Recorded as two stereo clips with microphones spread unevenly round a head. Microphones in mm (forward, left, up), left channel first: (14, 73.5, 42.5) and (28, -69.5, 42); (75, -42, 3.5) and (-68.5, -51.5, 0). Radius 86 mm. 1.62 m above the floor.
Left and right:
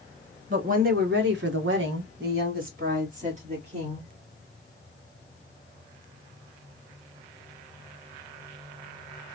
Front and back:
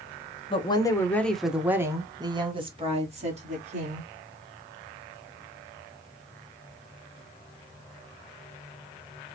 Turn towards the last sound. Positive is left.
turn(degrees=-140)